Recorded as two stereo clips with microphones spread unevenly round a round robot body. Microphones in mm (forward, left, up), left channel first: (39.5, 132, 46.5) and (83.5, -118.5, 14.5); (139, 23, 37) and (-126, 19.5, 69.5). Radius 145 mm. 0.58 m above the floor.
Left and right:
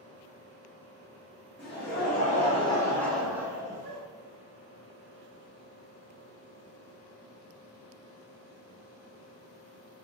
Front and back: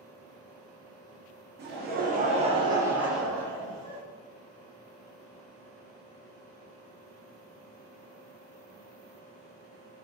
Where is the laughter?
140° left, 1.1 m; by 4.0 s 40° right, 1.0 m.